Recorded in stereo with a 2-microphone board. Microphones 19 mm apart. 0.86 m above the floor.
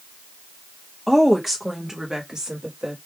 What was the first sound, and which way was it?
A woman speaking, centre (ahead or behind).